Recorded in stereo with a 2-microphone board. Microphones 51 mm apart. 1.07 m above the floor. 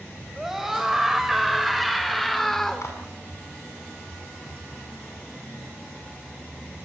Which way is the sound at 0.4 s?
5° right (ahead or behind).